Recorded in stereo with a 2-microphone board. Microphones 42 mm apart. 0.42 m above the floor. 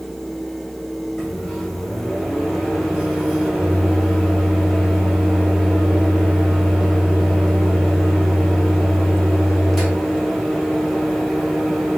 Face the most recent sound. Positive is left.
turn(degrees=0)  # may be behind; listen again after turning